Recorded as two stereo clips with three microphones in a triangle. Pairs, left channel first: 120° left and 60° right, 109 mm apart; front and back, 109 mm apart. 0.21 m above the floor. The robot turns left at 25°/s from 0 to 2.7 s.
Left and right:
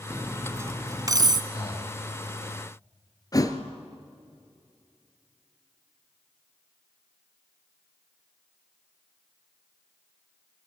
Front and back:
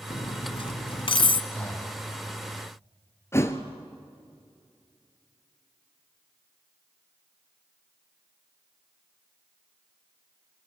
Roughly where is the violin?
No violin in this recording.